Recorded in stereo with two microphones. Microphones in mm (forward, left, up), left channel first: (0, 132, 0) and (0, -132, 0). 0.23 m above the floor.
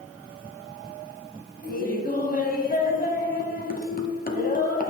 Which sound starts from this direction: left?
Laughter, at 1.6 s.